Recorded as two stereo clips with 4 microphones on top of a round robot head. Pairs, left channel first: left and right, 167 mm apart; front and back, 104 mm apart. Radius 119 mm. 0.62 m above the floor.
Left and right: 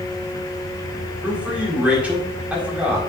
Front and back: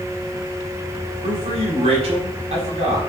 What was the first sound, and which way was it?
A man speaking, 170° right.